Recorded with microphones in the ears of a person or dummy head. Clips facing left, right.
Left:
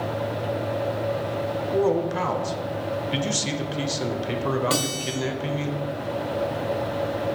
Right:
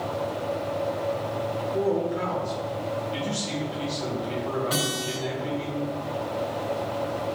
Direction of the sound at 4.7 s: 35° left (ahead or behind).